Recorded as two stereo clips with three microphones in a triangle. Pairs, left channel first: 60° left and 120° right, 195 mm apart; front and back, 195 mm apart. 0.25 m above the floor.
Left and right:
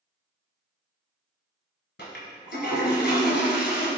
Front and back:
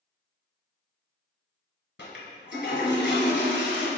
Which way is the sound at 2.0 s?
30° left.